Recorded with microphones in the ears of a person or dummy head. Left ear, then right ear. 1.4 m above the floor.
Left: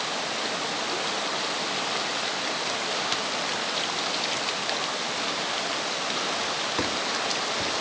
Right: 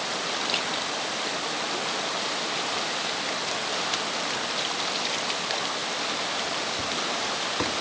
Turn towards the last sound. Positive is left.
No sound to turn to.